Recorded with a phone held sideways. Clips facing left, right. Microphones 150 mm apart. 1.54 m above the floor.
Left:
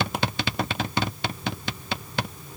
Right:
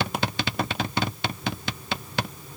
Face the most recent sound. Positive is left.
No sound to turn to.